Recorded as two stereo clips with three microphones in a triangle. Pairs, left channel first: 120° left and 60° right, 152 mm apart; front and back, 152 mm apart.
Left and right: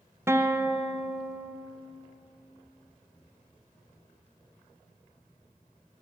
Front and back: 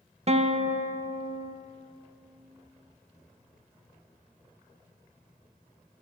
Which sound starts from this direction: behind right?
A guitar, at 0.3 s.